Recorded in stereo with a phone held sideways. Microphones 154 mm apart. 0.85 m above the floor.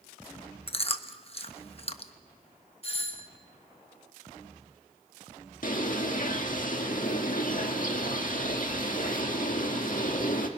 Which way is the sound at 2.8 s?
40° left (ahead or behind).